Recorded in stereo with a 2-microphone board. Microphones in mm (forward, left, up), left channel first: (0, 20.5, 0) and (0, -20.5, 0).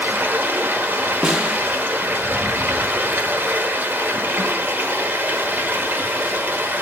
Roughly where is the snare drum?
Centre.